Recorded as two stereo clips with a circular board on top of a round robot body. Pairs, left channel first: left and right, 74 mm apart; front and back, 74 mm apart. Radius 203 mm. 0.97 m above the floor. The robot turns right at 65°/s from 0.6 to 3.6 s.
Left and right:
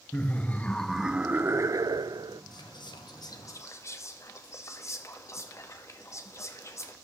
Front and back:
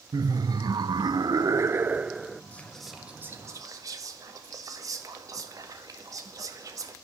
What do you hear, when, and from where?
0.1 s laughter: 160° left, 0.7 m; by 2.4 s 85° right, 0.7 m
2.5 s whispering: 70° left, 2 m; by 7.0 s 140° left, 2 m